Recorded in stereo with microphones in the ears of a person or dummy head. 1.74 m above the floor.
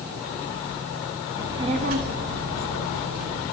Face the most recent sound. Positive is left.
turn(degrees=-75)  # may be behind; listen again after turning